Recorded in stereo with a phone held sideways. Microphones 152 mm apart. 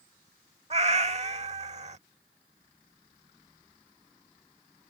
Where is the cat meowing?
45° right (ahead or behind).